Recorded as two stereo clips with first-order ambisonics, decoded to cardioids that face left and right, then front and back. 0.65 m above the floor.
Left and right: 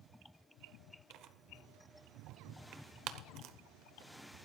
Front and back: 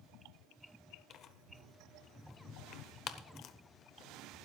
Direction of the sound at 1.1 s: 50° right.